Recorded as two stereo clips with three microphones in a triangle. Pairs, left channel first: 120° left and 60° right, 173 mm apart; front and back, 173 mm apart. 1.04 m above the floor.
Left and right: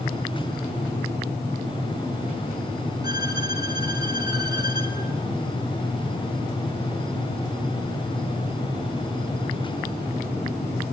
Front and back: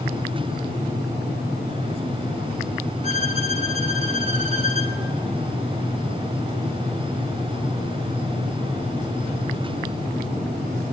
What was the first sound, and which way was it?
A violin, 125° right.